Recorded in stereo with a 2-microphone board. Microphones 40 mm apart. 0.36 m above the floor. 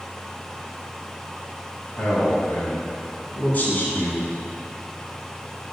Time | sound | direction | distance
2.0 | a man speaking | 35° left (ahead or behind) | 3 m